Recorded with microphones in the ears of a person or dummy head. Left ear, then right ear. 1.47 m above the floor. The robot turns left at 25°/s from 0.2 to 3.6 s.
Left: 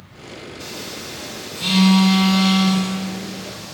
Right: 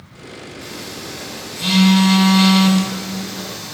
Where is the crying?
No crying in this recording.